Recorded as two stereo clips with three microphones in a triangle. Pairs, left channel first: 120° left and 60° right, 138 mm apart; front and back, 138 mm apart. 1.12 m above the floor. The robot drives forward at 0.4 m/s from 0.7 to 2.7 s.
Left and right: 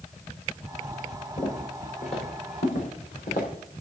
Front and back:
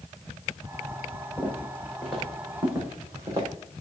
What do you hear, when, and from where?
1.4 s footsteps: 80° left, 6 m; by 3.5 s 115° left, 5.5 m